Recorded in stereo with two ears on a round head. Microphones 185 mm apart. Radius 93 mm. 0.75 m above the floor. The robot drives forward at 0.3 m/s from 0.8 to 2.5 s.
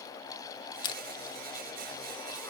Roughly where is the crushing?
Left.